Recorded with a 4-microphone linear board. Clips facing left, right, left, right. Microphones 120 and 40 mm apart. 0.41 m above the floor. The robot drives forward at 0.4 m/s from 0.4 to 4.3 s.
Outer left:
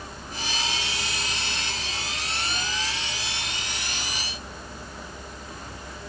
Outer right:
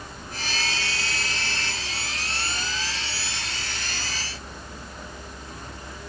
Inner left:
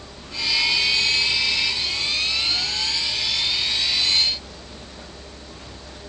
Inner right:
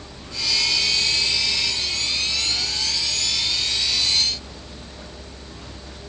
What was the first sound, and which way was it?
Only background noise.